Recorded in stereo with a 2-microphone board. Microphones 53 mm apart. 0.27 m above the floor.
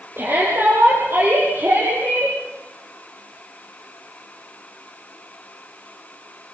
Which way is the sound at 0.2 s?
45° right (ahead or behind).